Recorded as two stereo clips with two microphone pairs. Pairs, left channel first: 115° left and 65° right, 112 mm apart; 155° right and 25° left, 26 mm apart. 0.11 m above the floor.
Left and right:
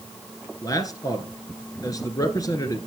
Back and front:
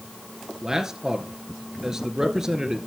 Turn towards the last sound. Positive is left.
turn(degrees=85)